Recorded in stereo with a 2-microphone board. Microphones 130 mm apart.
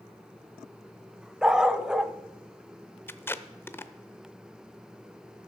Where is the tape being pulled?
15° left (ahead or behind), 0.6 m.